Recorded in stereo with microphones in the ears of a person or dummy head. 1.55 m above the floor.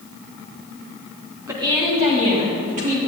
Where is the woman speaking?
15° right (ahead or behind), 1.5 m; by 3.0 s 45° right (ahead or behind), 3 m.